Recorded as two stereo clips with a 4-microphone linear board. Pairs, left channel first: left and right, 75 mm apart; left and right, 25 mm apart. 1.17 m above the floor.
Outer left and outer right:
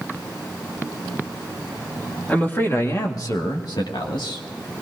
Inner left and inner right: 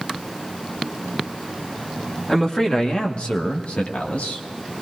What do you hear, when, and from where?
2.3 s a man speaking: 20° left (ahead or behind), 2.0 m; by 4.4 s 80° left, 3 m